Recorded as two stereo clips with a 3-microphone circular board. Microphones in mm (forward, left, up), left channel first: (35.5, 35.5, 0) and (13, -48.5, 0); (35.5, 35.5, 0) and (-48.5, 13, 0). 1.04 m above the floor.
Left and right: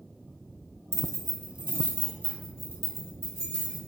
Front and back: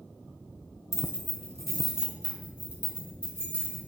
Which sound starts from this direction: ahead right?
Keys jangling, at 0.9 s.